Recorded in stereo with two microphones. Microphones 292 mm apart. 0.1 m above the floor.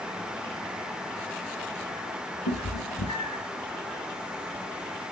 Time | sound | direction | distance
2.5 | a cat meowing | 75° left (ahead or behind) | 3 m